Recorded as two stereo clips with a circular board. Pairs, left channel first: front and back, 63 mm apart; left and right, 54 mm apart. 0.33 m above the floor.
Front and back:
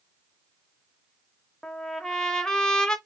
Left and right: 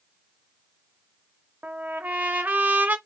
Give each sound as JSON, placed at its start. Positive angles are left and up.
{"t": 1.6, "sound": "a trumpet", "azimuth_deg": -70, "distance_m": 0.8}